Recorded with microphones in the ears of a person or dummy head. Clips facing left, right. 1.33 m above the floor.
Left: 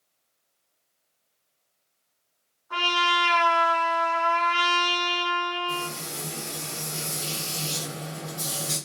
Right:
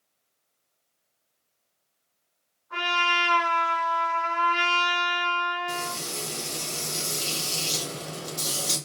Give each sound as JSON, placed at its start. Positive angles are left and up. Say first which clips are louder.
{"t": 2.7, "sound": "a trumpet", "louder": "left 2 dB", "side_deg": 70, "distance_m": 3.0}
{"t": 5.7, "sound": "frying", "louder": "even", "side_deg": -50, "distance_m": 1.3}